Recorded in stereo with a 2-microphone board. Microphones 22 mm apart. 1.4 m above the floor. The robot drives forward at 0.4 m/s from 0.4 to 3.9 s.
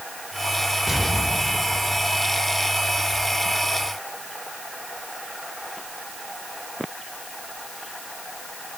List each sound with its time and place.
0.9 s an explosion: centre (ahead or behind), 5 m